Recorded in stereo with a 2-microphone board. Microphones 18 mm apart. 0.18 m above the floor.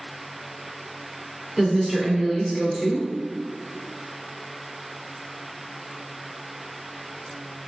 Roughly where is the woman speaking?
Right.